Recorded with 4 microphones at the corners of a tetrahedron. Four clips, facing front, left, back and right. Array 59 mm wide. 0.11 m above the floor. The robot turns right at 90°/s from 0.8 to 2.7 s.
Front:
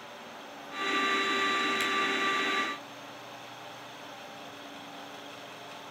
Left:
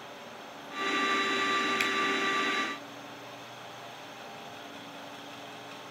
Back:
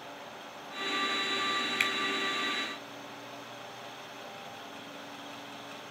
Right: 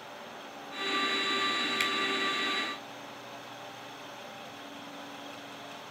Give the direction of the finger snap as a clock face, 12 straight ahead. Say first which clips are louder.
Left 1 dB, back 1 dB; 6 o'clock.